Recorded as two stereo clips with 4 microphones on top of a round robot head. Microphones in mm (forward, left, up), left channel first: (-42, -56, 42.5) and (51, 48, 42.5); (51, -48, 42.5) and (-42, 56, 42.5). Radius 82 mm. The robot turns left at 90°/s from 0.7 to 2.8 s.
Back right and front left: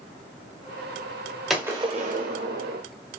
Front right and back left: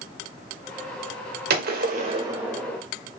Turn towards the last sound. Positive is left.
turn(degrees=20)